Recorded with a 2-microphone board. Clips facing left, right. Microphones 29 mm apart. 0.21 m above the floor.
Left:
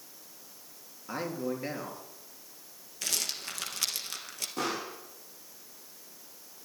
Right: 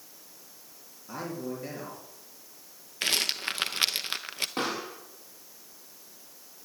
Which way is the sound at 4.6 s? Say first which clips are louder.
Even; 45° right (ahead or behind).